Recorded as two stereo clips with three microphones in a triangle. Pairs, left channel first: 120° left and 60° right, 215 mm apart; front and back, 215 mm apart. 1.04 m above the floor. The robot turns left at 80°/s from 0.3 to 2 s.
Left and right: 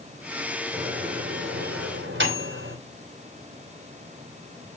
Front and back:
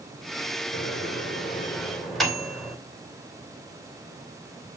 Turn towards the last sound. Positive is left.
turn(degrees=-90)